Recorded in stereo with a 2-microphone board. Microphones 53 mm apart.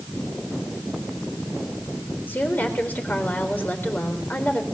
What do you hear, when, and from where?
2.3 s a woman speaking: 35° left (ahead or behind), 4 m